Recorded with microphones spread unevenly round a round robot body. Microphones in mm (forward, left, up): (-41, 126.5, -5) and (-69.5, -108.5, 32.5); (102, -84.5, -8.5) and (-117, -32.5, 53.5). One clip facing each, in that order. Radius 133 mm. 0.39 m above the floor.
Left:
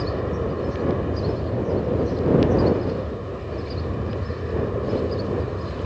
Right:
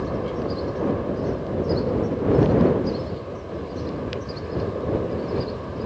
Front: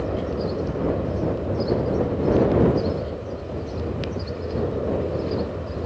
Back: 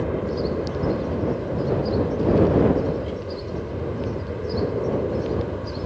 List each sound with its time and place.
0.0 s an aircraft: 95° left